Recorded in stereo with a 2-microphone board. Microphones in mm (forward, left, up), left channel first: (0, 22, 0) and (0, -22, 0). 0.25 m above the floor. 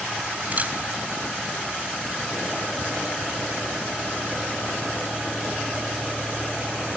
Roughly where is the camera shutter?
Right.